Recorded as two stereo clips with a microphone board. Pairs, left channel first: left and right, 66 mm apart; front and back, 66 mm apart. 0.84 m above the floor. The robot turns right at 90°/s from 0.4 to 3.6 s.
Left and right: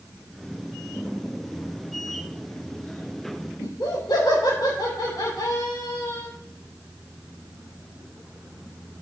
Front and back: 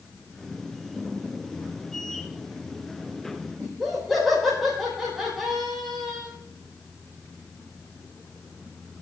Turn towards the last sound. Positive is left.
turn(degrees=90)